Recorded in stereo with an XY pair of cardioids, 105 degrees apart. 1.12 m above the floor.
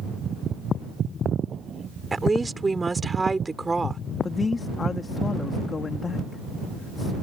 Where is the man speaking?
30° left.